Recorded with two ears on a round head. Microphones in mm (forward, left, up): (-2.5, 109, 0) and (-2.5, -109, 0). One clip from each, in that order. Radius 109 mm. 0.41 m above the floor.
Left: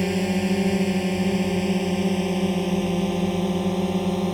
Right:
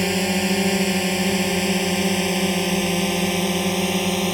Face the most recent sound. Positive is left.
turn(degrees=-70)  # may be behind; listen again after turning